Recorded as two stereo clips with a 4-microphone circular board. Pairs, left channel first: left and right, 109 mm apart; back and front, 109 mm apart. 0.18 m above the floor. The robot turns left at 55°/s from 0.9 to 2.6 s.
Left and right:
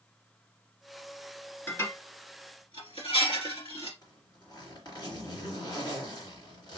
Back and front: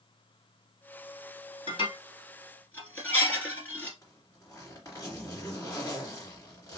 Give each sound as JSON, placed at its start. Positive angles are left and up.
{"t": 1.7, "sound": "dishes clattering", "azimuth_deg": 160, "distance_m": 2.0}
{"t": 4.0, "sound": "a zipper", "azimuth_deg": 125, "distance_m": 2.0}